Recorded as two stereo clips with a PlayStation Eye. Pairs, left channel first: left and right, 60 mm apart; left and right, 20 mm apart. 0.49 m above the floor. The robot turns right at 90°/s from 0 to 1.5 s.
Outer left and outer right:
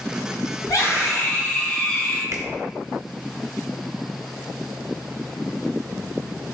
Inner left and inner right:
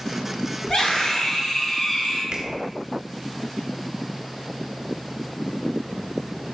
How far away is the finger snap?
About 0.9 m.